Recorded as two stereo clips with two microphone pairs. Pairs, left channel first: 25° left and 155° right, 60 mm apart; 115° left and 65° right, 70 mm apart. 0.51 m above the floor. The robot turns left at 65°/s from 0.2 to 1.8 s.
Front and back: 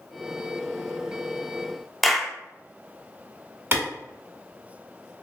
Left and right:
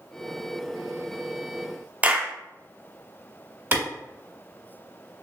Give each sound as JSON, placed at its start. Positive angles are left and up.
{"t": 2.0, "sound": "a clap", "azimuth_deg": -70, "distance_m": 0.5}
{"t": 3.7, "sound": "a clap", "azimuth_deg": -115, "distance_m": 1.5}